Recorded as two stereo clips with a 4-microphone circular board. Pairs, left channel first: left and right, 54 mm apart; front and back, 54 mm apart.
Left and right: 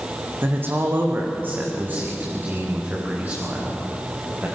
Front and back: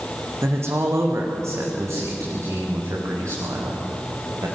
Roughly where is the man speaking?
Behind right.